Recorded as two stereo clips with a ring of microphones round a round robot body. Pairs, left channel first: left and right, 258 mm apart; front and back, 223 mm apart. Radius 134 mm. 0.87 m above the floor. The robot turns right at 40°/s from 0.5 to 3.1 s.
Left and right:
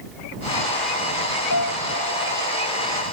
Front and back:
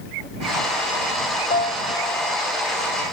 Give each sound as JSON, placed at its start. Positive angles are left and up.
{"t": 1.5, "sound": "a piano", "azimuth_deg": 55}